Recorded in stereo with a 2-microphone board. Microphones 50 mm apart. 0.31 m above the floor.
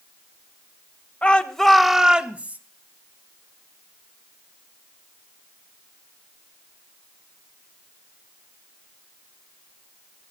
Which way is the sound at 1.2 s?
25° left (ahead or behind).